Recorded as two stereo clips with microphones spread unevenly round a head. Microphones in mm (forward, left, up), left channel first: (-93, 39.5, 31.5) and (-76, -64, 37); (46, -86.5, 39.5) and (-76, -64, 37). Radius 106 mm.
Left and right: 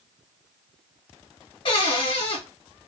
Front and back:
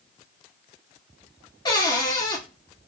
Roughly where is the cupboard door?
Ahead left.